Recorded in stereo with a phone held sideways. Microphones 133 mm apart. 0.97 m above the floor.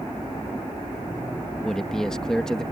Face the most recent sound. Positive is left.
turn(degrees=5)  # may be behind; listen again after turning